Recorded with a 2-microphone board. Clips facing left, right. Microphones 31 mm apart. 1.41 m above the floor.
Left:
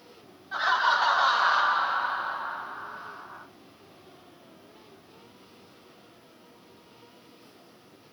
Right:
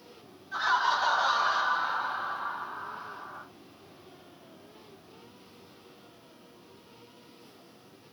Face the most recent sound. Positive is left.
turn(degrees=10)  # may be behind; listen again after turning